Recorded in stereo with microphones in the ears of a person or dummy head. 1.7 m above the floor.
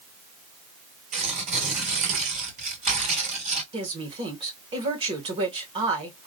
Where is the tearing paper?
40° right (ahead or behind), 2 m.